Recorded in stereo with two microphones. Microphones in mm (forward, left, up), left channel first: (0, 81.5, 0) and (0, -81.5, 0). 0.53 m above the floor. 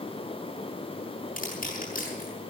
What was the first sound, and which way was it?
Crushing, 60° left (ahead or behind).